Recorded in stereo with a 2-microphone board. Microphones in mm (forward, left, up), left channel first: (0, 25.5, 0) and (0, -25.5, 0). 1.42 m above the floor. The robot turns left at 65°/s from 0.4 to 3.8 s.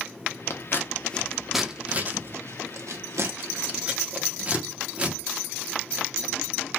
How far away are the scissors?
About 0.7 m.